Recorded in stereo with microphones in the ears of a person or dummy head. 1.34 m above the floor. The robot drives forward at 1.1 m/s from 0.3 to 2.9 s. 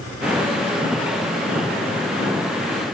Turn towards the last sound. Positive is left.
No sound to turn to.